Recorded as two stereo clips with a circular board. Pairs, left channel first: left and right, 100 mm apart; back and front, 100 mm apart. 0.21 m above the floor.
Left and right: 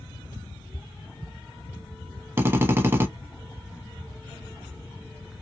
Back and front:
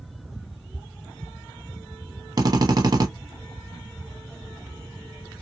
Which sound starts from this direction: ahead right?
A drill, at 2.4 s.